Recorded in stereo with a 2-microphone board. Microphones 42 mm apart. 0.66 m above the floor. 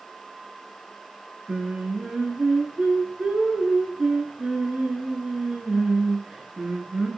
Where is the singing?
20° right (ahead or behind), 4.5 m.